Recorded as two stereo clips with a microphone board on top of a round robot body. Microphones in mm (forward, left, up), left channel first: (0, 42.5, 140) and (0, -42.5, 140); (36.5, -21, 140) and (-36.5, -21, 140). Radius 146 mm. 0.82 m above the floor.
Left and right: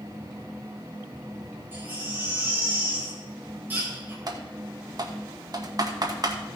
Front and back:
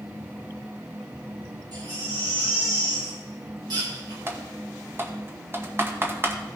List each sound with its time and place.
1.7 s a baby crying: 160° right, 4 m
4.3 s typing on a keyboard: 125° right, 2 m